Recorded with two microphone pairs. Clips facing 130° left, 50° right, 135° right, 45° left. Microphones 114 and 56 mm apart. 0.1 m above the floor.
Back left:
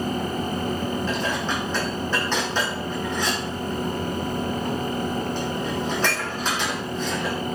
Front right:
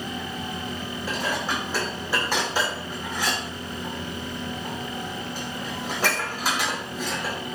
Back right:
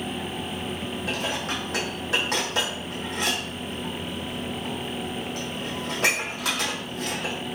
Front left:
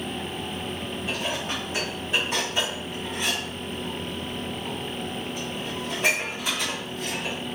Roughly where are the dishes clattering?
Behind right.